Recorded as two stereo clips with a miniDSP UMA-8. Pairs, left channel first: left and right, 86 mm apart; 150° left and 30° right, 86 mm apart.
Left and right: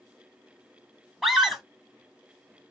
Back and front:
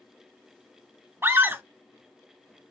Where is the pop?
I don't hear a pop.